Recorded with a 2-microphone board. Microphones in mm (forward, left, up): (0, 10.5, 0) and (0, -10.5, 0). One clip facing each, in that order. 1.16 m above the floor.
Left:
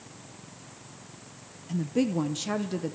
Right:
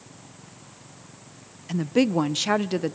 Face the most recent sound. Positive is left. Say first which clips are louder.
# right 5 dB
turn(degrees=-40)  # may be behind; listen again after turning